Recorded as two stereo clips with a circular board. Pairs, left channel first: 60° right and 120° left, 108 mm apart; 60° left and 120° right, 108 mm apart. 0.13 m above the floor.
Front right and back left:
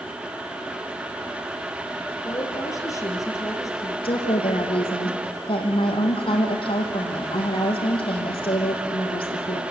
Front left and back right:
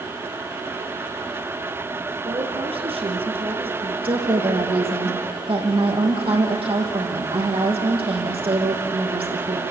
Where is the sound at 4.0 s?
90° right, 5 m.